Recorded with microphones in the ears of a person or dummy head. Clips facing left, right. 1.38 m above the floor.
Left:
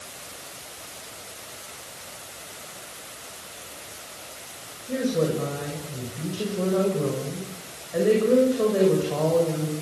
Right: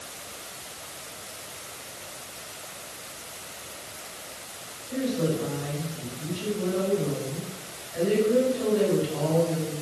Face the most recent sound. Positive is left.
turn(degrees=70)  # may be behind; listen again after turning